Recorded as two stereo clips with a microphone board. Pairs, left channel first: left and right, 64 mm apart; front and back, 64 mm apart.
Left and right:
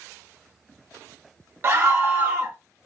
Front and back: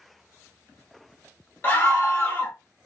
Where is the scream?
45° right, 0.7 m.